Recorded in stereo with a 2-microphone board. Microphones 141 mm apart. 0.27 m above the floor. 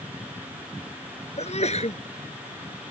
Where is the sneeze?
50° left (ahead or behind).